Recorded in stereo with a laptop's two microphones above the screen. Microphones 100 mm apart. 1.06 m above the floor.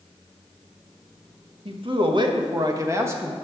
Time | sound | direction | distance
1.6 | a man speaking | 60° right (ahead or behind) | 1.5 m